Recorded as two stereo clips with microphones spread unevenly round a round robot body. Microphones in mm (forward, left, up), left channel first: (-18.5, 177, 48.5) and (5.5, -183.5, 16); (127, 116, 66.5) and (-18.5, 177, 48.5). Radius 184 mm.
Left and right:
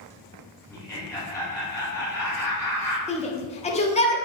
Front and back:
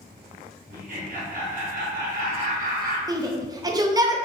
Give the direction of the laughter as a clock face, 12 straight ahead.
6 o'clock.